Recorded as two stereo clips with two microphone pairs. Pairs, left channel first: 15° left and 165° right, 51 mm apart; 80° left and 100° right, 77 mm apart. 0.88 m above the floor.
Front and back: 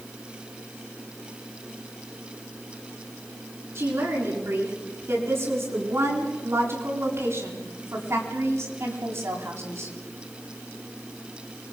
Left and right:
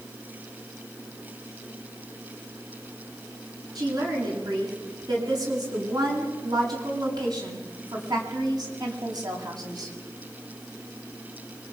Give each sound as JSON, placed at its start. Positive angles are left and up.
{"t": 3.8, "sound": "a woman speaking", "azimuth_deg": -125, "distance_m": 10.0}